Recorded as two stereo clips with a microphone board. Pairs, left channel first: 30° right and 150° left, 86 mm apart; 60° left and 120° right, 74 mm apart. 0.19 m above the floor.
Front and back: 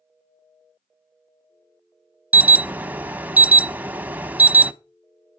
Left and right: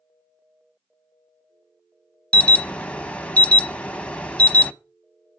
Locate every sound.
2.3 s an alarm: 110° left, 0.7 m